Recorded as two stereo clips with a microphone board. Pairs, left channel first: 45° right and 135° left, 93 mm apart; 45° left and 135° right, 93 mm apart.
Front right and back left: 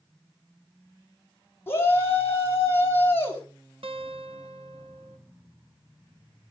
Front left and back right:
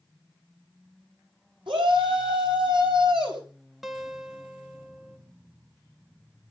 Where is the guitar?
135° left, 1.2 m.